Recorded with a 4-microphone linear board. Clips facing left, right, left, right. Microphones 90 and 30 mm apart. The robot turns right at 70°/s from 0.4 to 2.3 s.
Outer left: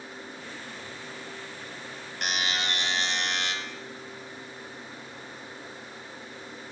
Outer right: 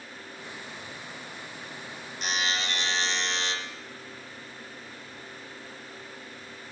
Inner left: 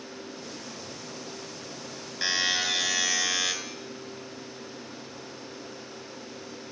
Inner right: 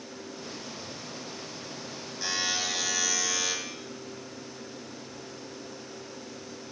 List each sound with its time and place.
2.2 s a buzzer: 65° left (ahead or behind), 2 m; by 3.5 s 60° left (ahead or behind), 2 m